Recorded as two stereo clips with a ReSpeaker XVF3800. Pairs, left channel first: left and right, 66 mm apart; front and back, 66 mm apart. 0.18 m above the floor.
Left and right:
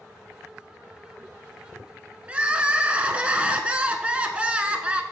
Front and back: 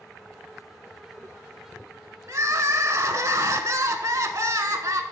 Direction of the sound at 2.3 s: 155° right.